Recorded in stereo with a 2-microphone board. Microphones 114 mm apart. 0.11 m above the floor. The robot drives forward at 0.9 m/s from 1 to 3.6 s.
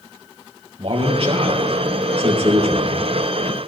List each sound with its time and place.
0.8 s a man speaking: 55° right (ahead or behind), 3 m